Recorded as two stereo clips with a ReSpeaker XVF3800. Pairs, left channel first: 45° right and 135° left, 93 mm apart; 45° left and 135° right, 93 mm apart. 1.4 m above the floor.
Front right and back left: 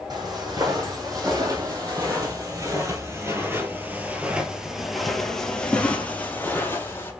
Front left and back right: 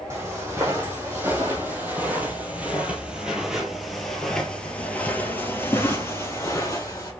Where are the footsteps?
165° left, 3 m; by 7.1 s 5° left, 2.0 m.